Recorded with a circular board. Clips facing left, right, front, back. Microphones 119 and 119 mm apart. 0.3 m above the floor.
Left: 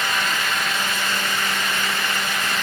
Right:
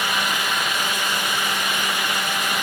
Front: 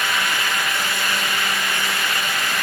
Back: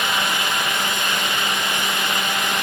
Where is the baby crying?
I don't hear a baby crying.